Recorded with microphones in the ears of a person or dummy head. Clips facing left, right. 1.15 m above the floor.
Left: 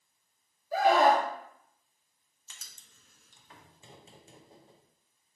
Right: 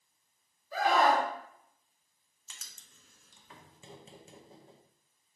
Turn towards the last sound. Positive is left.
turn(degrees=-60)  # may be behind; listen again after turning